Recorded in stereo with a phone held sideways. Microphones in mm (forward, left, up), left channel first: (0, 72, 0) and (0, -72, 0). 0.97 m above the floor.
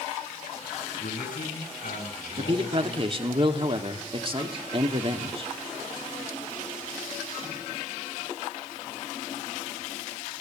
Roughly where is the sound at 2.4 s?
Right.